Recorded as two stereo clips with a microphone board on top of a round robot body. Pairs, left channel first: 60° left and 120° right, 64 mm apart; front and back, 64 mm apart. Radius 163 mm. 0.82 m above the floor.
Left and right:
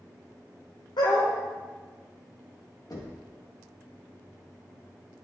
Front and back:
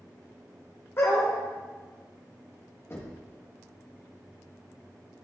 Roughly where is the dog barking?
Ahead left.